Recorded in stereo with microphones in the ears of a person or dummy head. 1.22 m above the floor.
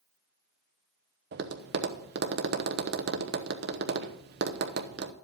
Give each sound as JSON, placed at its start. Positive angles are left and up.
{"t": 1.3, "sound": "tapping", "side_deg": -50, "distance_m": 0.8}